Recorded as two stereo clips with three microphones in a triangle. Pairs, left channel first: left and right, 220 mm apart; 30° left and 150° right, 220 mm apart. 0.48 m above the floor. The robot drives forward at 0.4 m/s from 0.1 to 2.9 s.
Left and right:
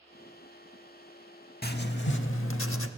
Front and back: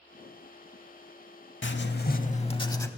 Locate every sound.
1.6 s writing: 50° left, 0.6 m; by 2.9 s 105° left, 0.5 m